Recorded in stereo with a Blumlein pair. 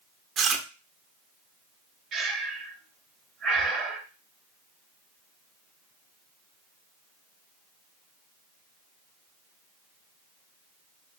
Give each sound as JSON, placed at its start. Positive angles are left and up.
{"t": 0.4, "sound": "chewing", "azimuth_deg": -25, "distance_m": 0.6}
{"t": 2.1, "sound": "breathing", "azimuth_deg": -25, "distance_m": 0.8}